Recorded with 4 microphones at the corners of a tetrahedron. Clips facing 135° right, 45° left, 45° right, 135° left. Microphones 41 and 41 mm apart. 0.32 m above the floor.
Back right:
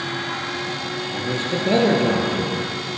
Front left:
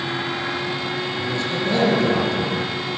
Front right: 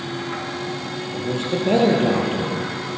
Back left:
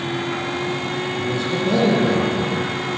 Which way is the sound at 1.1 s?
85° right.